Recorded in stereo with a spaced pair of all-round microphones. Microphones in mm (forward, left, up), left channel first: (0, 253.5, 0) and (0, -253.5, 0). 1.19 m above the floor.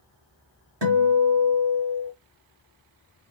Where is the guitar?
50° right (ahead or behind), 1.7 m.